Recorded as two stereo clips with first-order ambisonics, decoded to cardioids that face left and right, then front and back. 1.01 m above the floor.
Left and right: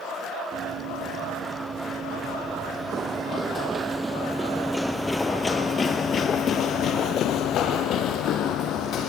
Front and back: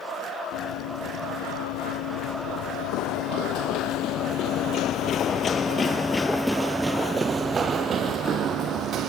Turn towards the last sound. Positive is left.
turn(degrees=130)